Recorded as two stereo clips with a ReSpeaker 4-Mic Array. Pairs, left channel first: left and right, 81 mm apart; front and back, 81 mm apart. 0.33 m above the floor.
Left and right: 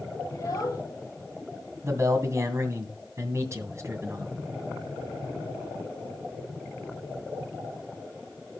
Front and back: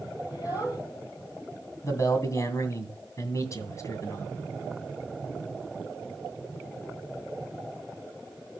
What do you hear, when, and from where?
0.3 s a child speaking: 40° left, 6.5 m
1.8 s a man speaking: 45° right, 2 m